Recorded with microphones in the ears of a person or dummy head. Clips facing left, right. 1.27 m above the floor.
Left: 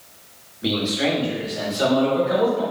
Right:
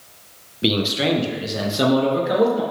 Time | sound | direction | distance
0.6 | a man speaking | 35° right (ahead or behind) | 0.8 m